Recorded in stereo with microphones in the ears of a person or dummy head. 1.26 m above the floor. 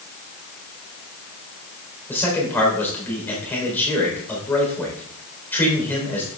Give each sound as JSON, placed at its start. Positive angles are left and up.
{"t": 2.1, "sound": "a man speaking", "side_deg": 15, "distance_m": 4.0}